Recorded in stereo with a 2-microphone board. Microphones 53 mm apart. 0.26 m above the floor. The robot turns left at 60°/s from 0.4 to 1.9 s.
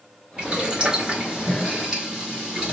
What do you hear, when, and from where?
0.4 s boiling: 15° right (ahead or behind), 1.5 m; by 2.7 s 10° right (ahead or behind), 1.5 m